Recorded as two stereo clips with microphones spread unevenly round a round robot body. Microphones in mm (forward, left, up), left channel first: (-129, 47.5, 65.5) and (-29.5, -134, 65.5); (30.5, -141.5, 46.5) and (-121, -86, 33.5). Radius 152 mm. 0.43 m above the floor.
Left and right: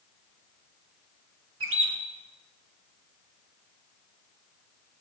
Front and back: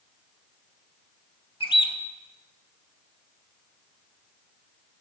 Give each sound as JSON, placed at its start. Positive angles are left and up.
{"t": 1.6, "sound": "a bird", "azimuth_deg": -80, "distance_m": 1.0}